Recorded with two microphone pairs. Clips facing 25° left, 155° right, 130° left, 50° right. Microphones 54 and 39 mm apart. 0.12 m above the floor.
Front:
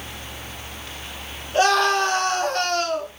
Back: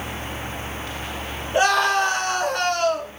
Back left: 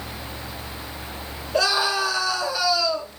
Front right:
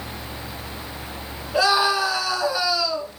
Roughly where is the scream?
Right.